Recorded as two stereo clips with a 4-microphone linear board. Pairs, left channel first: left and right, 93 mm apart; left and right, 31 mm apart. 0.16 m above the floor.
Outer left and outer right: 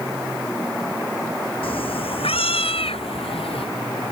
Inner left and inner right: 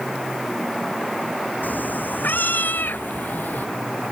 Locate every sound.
1.6 s a cat meowing: 75° left (ahead or behind); by 3.7 s 85° left